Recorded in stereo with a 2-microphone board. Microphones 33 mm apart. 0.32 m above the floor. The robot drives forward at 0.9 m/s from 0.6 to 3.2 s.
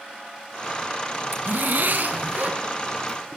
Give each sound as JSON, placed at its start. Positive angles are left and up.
{"t": 1.3, "sound": "a zipper", "side_deg": -75, "distance_m": 1.3}